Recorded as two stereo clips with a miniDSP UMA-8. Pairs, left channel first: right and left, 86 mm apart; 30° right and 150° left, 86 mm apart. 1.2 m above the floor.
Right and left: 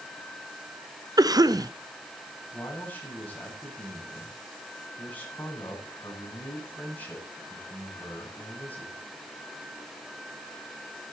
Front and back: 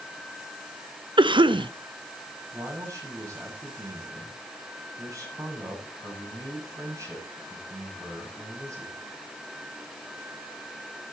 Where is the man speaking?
160° right, 7 m.